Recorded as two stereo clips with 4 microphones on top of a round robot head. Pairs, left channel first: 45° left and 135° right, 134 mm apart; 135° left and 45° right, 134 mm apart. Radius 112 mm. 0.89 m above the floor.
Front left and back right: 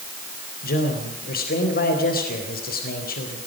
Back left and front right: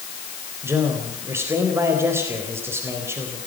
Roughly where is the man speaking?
Ahead left.